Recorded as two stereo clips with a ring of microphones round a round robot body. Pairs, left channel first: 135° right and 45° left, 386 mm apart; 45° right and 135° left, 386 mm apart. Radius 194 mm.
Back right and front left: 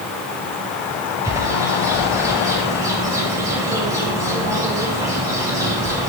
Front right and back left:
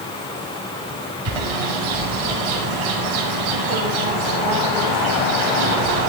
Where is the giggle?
No giggle in this recording.